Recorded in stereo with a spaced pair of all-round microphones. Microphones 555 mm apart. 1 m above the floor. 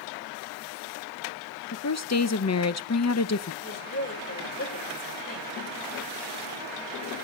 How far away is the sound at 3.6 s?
About 4 m.